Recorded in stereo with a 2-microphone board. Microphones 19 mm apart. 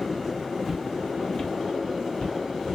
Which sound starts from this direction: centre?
Footsteps, at 0.7 s.